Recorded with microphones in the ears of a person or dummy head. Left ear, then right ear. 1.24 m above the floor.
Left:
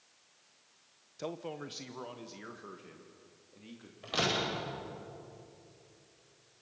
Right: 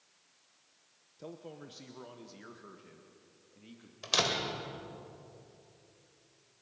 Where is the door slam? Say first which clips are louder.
Right 2 dB; 85° right, 3.5 m.